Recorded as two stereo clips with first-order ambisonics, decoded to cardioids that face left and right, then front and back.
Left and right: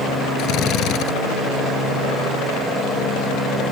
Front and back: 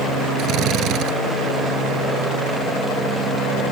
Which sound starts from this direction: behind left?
A drill, at 0.4 s.